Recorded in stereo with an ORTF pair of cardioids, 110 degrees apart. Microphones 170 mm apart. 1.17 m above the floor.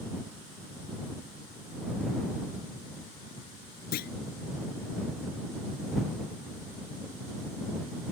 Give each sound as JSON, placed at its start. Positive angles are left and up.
{"t": 3.9, "sound": "a clunk", "azimuth_deg": 70}